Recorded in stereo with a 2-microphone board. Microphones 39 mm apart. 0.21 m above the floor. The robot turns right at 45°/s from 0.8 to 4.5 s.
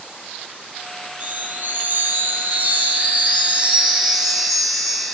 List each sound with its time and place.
1.2 s a chime: 145° right, 4.5 m; by 5.1 s 5° left, 4.5 m